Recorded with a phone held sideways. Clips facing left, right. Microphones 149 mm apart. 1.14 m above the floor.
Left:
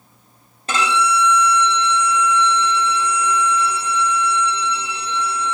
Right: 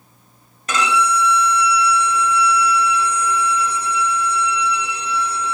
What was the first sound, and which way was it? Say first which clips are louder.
A violin: even; 30° left (ahead or behind).